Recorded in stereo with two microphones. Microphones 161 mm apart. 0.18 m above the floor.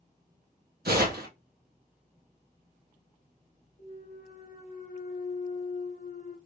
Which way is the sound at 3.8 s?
55° left (ahead or behind).